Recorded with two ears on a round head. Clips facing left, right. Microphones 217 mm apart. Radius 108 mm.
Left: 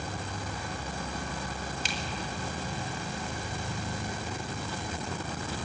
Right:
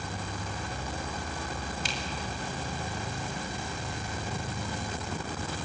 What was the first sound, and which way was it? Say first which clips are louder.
A finger snap: even; 60° left (ahead or behind).